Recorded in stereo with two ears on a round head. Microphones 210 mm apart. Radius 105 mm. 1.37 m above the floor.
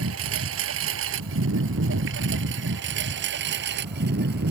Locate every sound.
0.0 s a lawn mower: 60° right (ahead or behind); by 4.5 s 40° right (ahead or behind)